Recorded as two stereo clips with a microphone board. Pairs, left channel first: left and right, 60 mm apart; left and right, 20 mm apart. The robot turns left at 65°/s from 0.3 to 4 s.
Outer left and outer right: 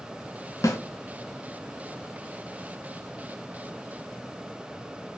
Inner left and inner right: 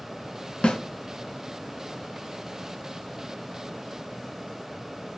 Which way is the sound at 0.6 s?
70° left (ahead or behind).